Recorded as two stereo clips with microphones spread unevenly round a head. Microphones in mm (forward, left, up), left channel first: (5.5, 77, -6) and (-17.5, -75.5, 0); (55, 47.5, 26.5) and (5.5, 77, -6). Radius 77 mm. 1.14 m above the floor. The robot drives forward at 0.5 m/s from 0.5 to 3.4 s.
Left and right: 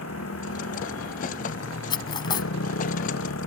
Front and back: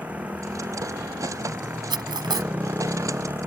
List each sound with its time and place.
0.0 s a motorcycle: 80° left; by 3.5 s 85° left
1.9 s cutlery clinking: 145° left; by 2.5 s 150° left